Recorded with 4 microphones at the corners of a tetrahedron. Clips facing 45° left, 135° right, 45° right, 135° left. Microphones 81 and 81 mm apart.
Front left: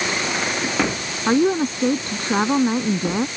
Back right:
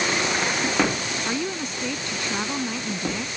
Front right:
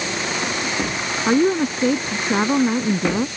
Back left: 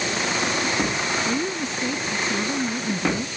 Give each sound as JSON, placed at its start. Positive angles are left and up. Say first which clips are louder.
{"t": 1.3, "sound": "a woman speaking", "louder": "front left 14 dB, front right 9 dB", "azimuth_deg": -10}